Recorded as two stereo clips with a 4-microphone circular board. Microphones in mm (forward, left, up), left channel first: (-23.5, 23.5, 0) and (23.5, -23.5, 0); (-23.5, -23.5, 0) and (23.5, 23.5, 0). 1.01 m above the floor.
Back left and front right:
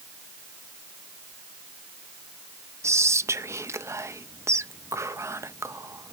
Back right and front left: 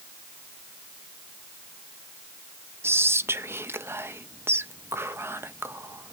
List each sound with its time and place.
2.8 s whispering: 5° right, 0.6 m